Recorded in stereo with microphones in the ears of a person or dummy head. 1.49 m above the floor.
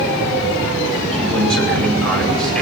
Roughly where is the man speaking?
Centre.